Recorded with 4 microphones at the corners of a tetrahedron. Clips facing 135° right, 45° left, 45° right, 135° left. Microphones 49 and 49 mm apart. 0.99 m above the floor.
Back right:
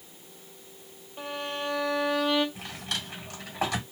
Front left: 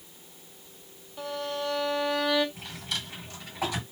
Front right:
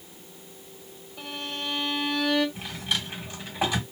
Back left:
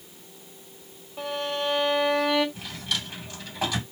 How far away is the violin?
About 1.5 m.